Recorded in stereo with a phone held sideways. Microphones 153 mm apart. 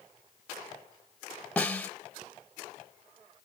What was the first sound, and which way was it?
A snare drum, 10° left (ahead or behind).